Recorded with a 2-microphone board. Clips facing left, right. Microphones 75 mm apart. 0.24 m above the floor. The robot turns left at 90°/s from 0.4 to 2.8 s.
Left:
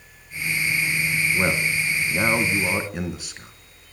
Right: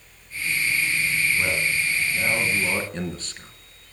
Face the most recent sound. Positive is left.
turn(degrees=10)